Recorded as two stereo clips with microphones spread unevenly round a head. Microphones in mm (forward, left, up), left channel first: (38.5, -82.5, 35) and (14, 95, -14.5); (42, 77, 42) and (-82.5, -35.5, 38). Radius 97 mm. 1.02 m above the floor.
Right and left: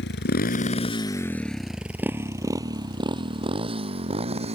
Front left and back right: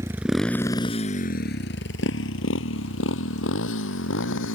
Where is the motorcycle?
60° right; by 4.6 s 40° left.